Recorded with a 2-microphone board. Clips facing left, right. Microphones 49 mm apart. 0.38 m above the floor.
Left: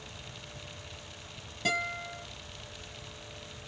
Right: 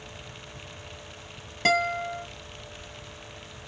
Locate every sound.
1.6 s a guitar: 70° right (ahead or behind), 2.5 m